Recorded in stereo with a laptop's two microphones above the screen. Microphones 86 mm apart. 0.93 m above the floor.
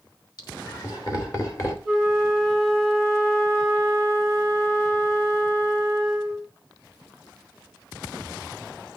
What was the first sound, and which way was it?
Laughter, 50° left (ahead or behind).